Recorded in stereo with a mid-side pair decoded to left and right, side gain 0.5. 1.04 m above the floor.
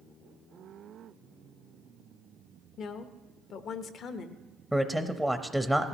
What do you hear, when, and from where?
2.8 s a woman speaking: 60° left, 1.0 m
4.7 s a man speaking: 5° left, 0.7 m